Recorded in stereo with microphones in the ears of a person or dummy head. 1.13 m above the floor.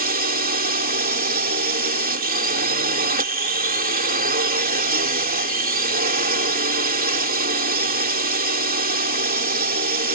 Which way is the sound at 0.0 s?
50° right (ahead or behind).